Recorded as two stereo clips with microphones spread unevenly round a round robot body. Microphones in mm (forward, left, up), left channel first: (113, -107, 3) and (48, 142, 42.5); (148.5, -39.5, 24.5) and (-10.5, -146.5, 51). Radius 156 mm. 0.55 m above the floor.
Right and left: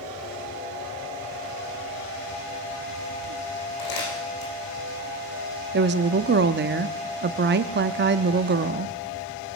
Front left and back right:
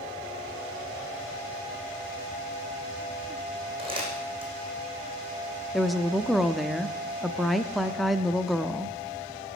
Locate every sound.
3.8 s crumpling: 85° right, 8.5 m
5.7 s a woman speaking: 110° left, 0.7 m